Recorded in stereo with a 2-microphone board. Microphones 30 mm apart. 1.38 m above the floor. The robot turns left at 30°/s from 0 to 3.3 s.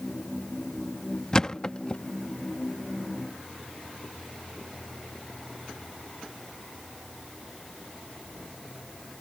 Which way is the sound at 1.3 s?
25° left (ahead or behind).